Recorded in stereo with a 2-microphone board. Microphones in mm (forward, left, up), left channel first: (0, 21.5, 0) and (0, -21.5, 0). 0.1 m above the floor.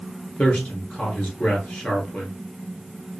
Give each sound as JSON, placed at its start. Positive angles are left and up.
{"t": 0.4, "sound": "a man speaking", "side_deg": 30, "distance_m": 1.2}